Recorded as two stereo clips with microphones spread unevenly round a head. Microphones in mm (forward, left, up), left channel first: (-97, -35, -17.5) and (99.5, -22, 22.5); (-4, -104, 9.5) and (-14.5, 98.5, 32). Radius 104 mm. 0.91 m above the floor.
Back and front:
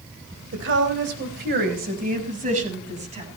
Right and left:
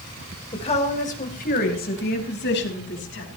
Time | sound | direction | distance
0.5 | a woman speaking | 25° right | 4 m